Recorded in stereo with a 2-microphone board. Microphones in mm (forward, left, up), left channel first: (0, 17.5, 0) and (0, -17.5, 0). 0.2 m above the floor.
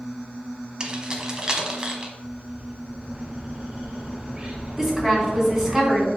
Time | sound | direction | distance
0.8 | keys jangling | 25° right (ahead or behind) | 1.0 m
2.2 | a bird | 30° right (ahead or behind) | 1.2 m
4.8 | a woman speaking | 15° right (ahead or behind) | 2.5 m